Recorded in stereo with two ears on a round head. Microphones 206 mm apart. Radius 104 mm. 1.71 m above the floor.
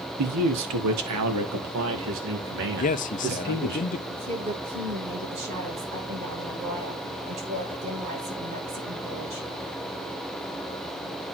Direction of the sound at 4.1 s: 30° right (ahead or behind).